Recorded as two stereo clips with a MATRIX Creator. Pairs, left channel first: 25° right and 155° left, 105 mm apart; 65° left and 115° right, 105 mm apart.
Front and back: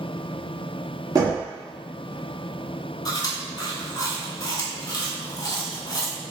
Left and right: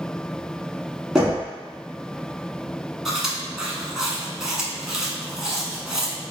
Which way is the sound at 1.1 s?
170° left.